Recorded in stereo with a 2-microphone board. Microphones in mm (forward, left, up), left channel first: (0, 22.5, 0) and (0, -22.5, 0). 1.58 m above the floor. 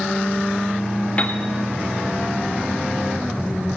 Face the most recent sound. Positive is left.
turn(degrees=30)  # may be behind; listen again after turning